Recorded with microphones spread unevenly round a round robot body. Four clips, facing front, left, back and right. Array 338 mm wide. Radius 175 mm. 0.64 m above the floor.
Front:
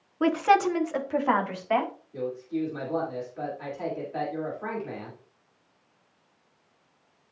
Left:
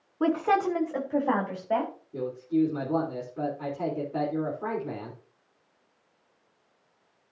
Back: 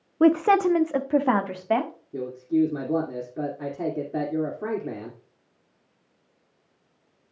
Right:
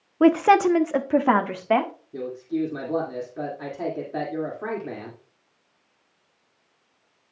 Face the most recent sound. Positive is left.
turn(degrees=-170)